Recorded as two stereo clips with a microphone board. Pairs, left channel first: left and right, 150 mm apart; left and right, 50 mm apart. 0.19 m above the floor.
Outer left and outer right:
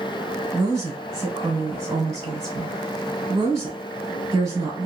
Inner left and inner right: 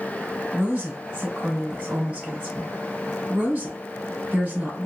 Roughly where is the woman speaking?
Right.